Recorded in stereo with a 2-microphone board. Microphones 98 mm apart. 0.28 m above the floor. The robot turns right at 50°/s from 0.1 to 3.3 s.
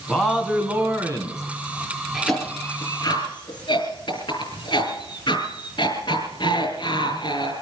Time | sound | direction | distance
0.1 | a man speaking | 170° left | 3 m
2.1 | a cough | 5° right (ahead or behind) | 4.5 m